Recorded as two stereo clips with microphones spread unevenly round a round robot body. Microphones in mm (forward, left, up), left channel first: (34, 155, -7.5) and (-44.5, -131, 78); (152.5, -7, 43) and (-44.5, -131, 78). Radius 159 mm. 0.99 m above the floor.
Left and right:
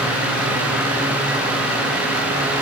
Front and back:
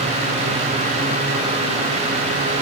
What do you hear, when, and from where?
Only background noise.